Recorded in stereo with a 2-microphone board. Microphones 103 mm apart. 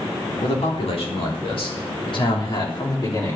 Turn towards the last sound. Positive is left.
turn(degrees=35)  # may be behind; listen again after turning